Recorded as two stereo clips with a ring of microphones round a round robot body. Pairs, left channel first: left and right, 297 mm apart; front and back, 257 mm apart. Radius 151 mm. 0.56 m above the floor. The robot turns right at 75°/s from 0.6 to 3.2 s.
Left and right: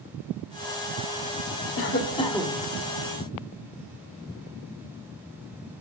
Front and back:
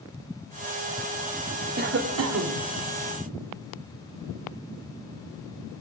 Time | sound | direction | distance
1.8 | a cough | 130° left | 1.4 m